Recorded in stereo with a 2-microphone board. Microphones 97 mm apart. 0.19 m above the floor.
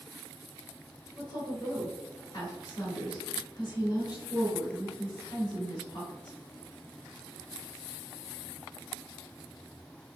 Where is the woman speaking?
35° left (ahead or behind), 1.3 m.